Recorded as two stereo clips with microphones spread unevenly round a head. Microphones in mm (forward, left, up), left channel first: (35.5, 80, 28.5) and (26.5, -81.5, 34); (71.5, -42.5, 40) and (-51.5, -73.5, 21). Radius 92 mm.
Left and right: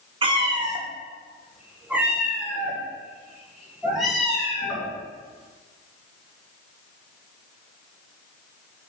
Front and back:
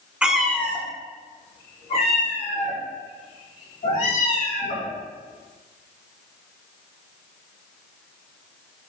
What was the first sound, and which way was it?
A cat meowing, 75° right.